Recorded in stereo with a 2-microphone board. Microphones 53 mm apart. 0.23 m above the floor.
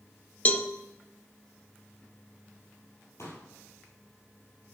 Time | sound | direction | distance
0.5 | a cowbell | 30° left (ahead or behind) | 0.6 m
3.2 | a pop | 60° left (ahead or behind) | 3.5 m